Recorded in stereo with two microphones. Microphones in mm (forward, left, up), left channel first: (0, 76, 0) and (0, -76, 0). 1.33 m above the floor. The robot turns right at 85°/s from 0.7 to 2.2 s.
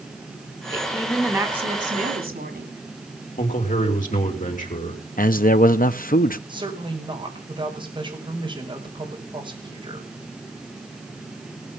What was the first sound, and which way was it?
A woman speaking, 145° left.